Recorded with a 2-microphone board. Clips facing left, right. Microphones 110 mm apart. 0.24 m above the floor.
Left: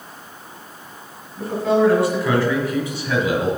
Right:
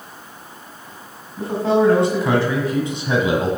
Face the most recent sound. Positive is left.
turn(degrees=-25)  # may be behind; listen again after turning